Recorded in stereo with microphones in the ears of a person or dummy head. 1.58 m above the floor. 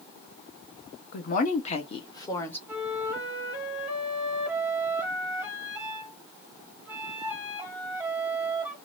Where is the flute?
5° right (ahead or behind), 0.9 m.